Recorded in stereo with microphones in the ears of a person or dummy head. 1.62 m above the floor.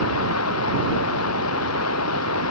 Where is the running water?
80° left.